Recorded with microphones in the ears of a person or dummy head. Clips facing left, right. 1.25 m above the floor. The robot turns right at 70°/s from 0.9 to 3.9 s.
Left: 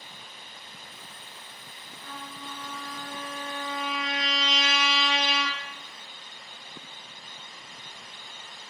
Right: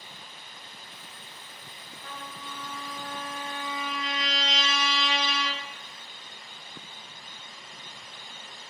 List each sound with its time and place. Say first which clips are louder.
2.0 s a trumpet: left 1 dB; 130° right, 0.6 m; by 5.6 s straight ahead, 0.6 m